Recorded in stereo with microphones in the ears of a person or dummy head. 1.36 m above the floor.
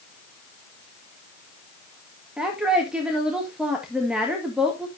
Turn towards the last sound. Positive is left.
turn(degrees=-10)  # may be behind; listen again after turning